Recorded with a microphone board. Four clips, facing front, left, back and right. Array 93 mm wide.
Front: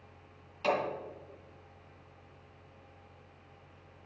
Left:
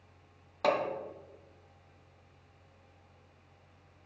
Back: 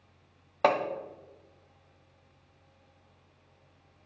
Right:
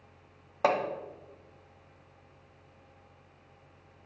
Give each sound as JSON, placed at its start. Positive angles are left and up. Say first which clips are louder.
{"t": 0.6, "sound": "hammering", "louder": "right 2 dB, back 5 dB", "azimuth_deg": -160, "distance_m": 1.0}